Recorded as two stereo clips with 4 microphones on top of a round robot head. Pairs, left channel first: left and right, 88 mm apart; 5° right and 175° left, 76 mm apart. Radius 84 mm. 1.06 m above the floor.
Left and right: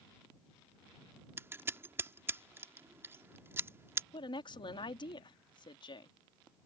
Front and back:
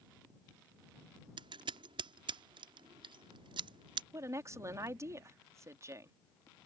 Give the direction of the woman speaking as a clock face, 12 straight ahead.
8 o'clock.